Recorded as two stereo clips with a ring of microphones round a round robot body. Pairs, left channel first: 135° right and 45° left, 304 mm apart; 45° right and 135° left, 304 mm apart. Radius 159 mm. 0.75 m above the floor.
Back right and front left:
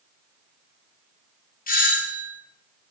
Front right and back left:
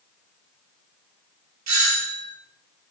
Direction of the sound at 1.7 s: 165° left.